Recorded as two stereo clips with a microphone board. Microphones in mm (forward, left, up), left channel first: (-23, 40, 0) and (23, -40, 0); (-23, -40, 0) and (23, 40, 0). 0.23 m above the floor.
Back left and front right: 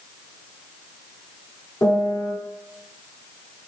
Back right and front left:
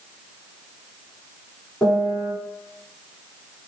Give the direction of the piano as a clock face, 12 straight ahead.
7 o'clock.